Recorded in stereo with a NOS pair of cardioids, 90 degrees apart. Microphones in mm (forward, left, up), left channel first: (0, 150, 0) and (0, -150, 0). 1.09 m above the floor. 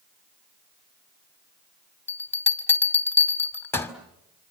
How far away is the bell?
About 2.5 m.